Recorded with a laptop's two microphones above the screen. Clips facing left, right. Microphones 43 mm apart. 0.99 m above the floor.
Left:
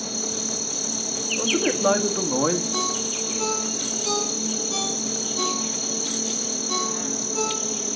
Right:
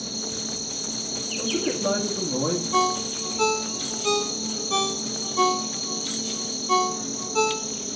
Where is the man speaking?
60° left (ahead or behind), 1.5 m.